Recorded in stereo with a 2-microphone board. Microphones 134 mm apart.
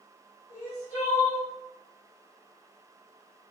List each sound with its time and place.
0.5 s crying: 45° left (ahead or behind), 1.7 m